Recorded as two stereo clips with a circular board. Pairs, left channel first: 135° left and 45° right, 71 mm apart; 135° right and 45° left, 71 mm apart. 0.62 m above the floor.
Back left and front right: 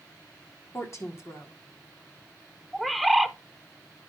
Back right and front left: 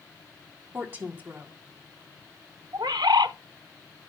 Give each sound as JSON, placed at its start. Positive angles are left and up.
{"t": 0.7, "sound": "a woman speaking", "azimuth_deg": 100, "distance_m": 1.5}
{"t": 2.7, "sound": "a bird", "azimuth_deg": 45, "distance_m": 0.5}